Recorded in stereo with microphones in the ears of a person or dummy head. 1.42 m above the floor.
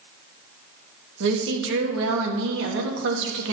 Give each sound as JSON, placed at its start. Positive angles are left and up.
{"t": 1.2, "sound": "a woman speaking", "side_deg": -70, "distance_m": 1.5}